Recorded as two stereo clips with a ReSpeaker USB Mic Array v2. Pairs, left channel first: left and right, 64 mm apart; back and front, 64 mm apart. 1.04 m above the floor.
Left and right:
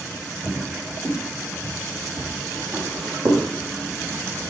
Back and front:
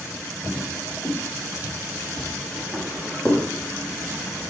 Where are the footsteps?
115° right, 6.5 m; by 3.5 s 90° right, 6 m.